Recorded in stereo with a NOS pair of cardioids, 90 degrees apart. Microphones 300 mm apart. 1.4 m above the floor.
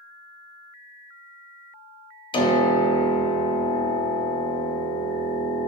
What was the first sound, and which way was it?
A piano, 15° left.